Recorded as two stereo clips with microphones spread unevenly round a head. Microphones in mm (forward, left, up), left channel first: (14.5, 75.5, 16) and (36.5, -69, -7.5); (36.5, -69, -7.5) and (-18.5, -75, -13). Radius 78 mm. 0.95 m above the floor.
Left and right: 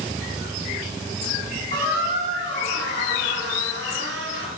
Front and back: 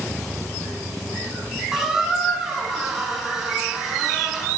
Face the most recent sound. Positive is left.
turn(degrees=-90)